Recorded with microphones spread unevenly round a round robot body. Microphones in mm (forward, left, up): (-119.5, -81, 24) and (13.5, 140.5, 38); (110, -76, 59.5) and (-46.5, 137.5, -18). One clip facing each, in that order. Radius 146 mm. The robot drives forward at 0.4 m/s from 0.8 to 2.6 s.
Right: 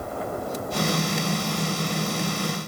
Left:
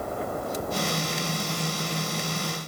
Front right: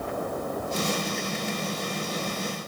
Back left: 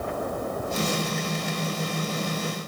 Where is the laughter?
I don't hear laughter.